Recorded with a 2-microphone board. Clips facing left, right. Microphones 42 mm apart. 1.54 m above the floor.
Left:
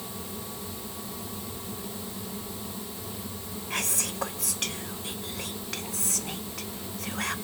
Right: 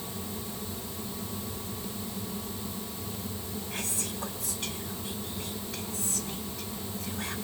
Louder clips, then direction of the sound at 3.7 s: Left 7 dB; 85° left.